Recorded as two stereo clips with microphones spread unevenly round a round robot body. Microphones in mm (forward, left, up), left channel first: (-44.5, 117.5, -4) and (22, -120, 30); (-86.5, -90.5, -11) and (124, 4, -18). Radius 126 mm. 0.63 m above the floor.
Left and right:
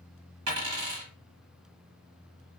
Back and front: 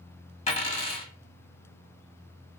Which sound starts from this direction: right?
A dropped coin, at 0.5 s.